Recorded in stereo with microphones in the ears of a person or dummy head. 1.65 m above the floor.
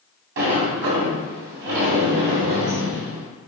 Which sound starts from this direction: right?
A sliding door, at 0.4 s.